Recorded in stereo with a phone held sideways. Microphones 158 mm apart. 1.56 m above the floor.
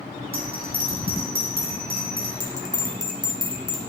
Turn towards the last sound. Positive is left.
turn(degrees=-25)  # may be behind; listen again after turning